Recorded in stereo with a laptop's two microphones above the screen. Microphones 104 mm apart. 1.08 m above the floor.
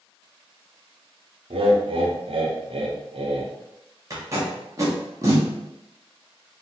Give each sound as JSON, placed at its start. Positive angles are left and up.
{"t": 1.5, "sound": "laughter", "side_deg": -65, "distance_m": 0.7}
{"t": 4.1, "sound": "tape being pulled", "side_deg": -30, "distance_m": 0.8}